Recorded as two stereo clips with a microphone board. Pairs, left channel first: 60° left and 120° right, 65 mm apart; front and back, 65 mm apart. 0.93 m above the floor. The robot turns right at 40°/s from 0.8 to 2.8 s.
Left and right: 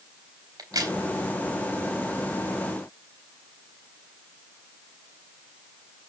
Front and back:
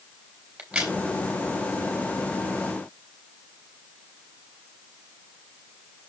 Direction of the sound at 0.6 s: 105° right.